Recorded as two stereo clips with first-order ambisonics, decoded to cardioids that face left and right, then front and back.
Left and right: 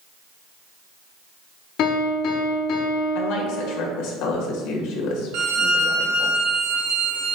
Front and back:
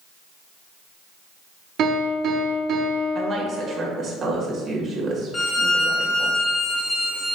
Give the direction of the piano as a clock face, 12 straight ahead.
8 o'clock.